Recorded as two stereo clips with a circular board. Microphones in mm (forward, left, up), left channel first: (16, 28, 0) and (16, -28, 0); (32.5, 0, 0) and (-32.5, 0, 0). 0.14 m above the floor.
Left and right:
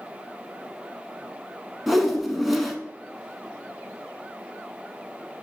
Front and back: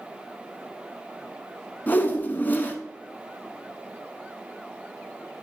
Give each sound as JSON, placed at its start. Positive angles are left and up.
{"t": 1.9, "sound": "a whoosh", "azimuth_deg": -5, "distance_m": 0.7}